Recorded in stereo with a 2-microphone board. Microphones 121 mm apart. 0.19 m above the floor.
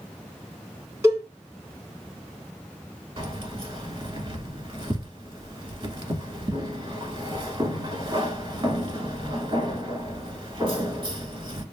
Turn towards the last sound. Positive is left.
turn(degrees=-40)  # may be behind; listen again after turning